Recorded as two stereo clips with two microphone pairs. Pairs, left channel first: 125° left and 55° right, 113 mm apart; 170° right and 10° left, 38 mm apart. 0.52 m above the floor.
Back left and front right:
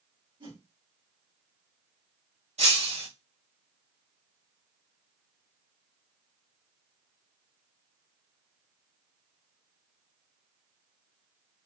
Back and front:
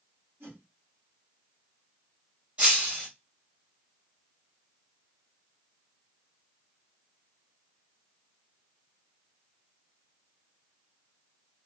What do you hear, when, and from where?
0.4 s a whoosh: 10° right, 1.9 m
2.6 s breaking glass: 45° right, 1.7 m